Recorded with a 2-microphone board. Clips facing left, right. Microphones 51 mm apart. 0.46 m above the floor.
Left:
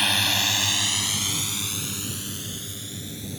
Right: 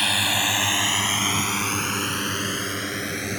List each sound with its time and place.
0.0 s a drone: centre (ahead or behind); by 3.4 s 70° right (ahead or behind)